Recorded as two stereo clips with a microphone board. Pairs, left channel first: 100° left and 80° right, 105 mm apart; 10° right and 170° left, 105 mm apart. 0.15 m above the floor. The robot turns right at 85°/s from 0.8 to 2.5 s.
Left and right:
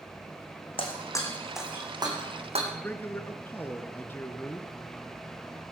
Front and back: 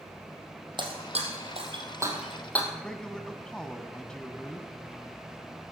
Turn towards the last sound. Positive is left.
turn(degrees=60)